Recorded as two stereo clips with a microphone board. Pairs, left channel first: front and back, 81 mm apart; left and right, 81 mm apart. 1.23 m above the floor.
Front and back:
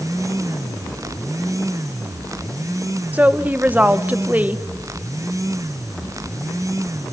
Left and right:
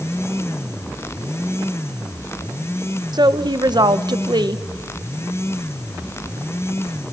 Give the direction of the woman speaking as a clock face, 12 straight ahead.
4 o'clock.